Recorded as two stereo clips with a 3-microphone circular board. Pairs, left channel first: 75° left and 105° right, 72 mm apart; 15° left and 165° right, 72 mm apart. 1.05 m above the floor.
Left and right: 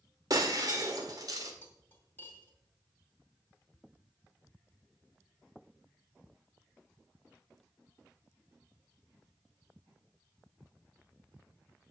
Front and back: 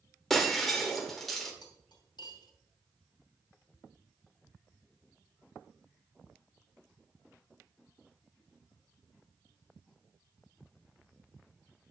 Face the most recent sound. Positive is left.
turn(degrees=15)